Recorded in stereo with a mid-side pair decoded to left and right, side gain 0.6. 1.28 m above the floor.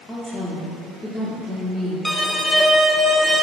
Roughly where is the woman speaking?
Ahead.